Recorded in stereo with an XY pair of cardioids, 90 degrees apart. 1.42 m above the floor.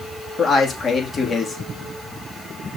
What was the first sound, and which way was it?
A man speaking, 55° left.